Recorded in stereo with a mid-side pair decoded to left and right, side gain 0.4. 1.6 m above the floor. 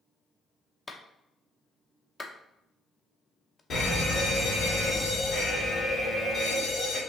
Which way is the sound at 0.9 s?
30° left.